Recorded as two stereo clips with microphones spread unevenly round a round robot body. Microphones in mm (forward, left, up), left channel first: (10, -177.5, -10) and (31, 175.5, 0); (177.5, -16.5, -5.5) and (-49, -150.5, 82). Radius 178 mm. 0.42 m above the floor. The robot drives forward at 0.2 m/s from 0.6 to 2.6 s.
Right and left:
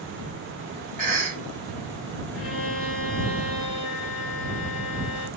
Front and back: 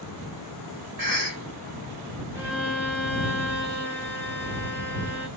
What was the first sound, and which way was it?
A cough, 150° left.